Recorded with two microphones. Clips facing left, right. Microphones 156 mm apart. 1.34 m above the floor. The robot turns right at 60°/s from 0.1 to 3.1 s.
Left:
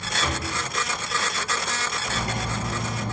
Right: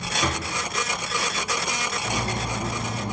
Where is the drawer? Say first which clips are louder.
Right 1 dB; 35° right (ahead or behind), 0.5 m; by 0.5 s 40° right (ahead or behind), 0.5 m.